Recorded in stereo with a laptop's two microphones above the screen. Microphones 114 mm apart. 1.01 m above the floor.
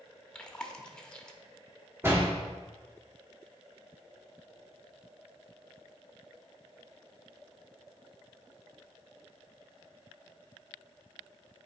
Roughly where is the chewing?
Centre.